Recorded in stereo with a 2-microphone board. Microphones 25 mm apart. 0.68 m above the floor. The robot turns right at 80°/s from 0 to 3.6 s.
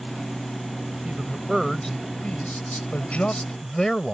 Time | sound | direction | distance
1.1 | a man speaking | 50° right | ?